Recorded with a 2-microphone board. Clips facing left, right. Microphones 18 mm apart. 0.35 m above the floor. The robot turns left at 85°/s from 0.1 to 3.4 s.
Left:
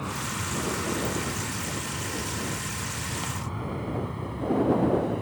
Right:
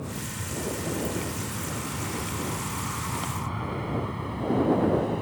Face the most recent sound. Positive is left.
turn(degrees=-10)  # may be behind; listen again after turning